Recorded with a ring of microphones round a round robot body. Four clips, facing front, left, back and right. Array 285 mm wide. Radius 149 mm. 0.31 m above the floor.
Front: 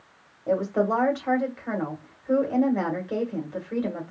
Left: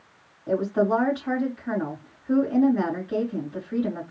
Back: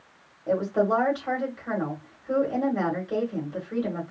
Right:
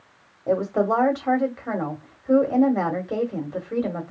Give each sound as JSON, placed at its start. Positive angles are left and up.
{"t": 0.5, "sound": "a woman speaking", "azimuth_deg": -80, "distance_m": 1.9}